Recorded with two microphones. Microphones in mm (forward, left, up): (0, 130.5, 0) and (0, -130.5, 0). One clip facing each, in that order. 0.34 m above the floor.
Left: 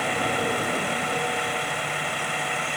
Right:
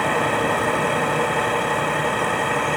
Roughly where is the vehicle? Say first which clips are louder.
Right 5 dB; right.